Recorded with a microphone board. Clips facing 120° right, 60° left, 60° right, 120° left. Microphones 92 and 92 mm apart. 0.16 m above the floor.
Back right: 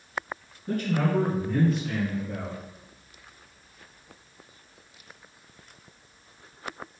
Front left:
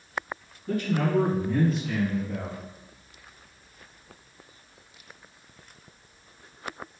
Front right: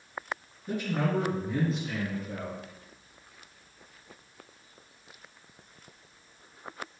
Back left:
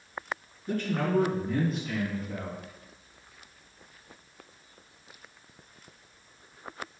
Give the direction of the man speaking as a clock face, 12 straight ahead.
5 o'clock.